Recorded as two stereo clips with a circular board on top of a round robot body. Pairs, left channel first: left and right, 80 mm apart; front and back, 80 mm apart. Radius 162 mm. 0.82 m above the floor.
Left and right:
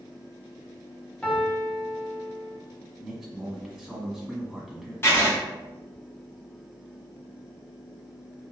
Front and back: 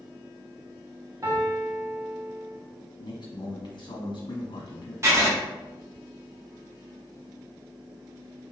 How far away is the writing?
About 1.5 m.